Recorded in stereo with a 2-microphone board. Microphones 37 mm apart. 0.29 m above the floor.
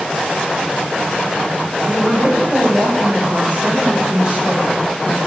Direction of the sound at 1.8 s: 40° right (ahead or behind).